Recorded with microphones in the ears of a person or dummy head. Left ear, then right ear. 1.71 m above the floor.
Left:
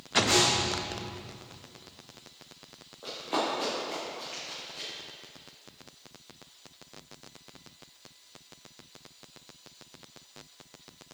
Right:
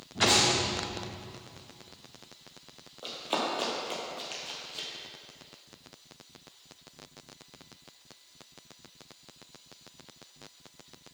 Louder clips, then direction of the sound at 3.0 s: Left 1 dB; 15° right (ahead or behind).